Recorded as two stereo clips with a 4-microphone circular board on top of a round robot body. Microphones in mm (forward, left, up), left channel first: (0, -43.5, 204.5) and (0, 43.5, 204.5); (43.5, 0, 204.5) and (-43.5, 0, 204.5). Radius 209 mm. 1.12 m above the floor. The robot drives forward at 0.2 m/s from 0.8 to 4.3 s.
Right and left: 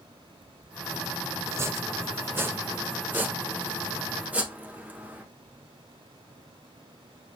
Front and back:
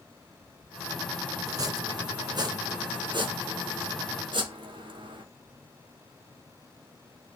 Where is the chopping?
140° left, 0.7 m; by 5.2 s 160° left, 1.1 m.